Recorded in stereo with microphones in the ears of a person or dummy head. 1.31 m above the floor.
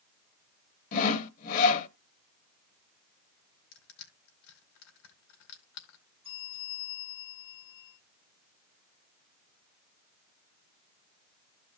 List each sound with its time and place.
0.9 s sawing: 45° left (ahead or behind), 0.6 m
3.7 s crushing: 60° left (ahead or behind), 2.5 m
6.2 s a bell: 25° right (ahead or behind), 8 m